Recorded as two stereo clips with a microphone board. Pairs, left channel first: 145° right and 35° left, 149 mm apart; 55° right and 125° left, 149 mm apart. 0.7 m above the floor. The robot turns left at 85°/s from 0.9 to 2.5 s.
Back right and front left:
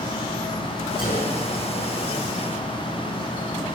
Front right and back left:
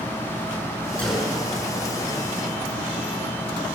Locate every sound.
1.0 s a gunshot: 135° right, 7.5 m; by 1.4 s 170° right, 7.5 m